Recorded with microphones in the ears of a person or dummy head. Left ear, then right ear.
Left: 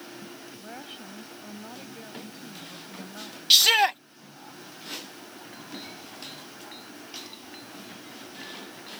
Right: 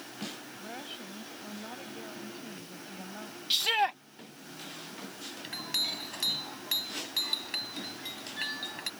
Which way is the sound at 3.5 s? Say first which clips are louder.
Left 9 dB; 30° left (ahead or behind).